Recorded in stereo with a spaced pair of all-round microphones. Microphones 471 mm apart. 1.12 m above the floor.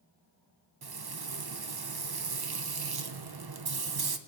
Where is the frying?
55° right (ahead or behind), 0.6 m.